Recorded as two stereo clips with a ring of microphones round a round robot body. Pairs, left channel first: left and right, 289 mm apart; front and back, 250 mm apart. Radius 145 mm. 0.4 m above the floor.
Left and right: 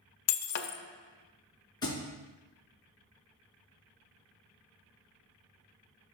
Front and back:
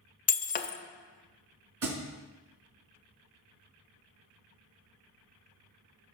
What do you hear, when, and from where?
0.3 s breaking glass: 60° left, 0.5 m
1.8 s a thud: 165° left, 2.0 m